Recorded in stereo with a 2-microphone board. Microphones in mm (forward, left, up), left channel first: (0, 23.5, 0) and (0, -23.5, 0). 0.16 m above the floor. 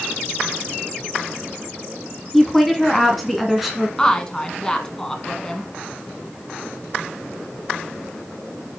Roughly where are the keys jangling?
No keys jangling in this recording.